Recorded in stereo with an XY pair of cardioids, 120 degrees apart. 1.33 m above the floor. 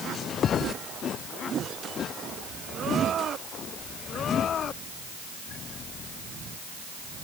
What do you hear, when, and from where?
Only background noise.